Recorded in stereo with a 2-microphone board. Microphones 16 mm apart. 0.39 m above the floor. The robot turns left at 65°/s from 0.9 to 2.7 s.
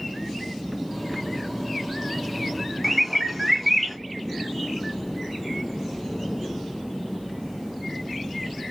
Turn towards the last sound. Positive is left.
turn(degrees=-10)  # may be behind; listen again after turning